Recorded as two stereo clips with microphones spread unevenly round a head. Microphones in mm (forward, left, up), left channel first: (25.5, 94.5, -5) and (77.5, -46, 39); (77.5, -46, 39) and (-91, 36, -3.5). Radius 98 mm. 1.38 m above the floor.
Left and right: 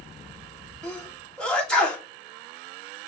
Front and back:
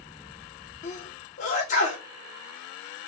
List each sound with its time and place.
0.8 s a sneeze: 25° left, 3 m